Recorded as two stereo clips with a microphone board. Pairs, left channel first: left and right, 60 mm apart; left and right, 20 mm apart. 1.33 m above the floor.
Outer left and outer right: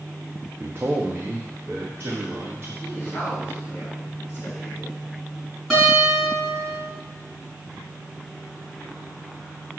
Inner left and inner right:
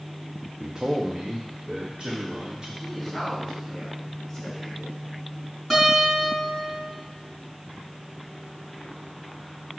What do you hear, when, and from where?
0.6 s a man speaking: 40° right (ahead or behind), 0.6 m; by 2.7 s 35° right (ahead or behind), 3 m
2.8 s a woman speaking: 30° left (ahead or behind), 3.5 m
5.7 s a guitar: centre (ahead or behind), 4.5 m